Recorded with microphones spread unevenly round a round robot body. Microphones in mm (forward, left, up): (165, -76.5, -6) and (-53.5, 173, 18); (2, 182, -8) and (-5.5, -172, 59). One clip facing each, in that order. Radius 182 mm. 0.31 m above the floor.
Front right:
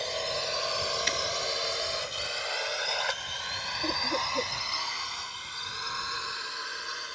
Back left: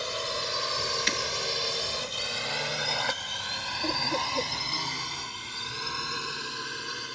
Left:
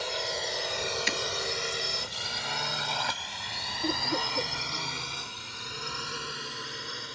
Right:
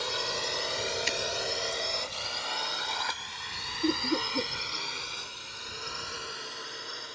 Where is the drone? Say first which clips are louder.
Even, even; 155° right; by 7.2 s 80° left.